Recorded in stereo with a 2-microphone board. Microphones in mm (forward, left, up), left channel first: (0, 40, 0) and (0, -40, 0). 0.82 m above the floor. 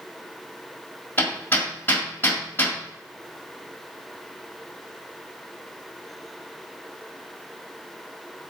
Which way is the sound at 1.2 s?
25° left (ahead or behind).